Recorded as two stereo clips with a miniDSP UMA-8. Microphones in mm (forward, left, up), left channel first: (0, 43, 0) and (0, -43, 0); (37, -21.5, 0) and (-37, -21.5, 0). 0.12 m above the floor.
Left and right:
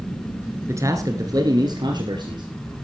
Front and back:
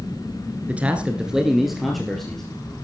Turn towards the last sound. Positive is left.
turn(degrees=-85)